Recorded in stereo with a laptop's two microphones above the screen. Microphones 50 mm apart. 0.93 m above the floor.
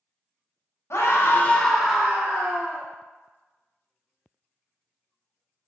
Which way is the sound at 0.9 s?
60° left (ahead or behind).